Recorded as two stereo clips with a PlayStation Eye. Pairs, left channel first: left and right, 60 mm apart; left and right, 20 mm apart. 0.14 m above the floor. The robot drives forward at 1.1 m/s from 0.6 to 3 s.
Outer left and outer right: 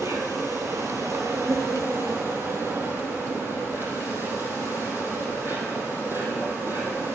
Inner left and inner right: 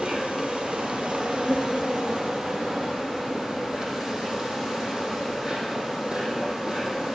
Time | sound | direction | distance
0.0 | an insect | 70° right (ahead or behind) | 2.5 m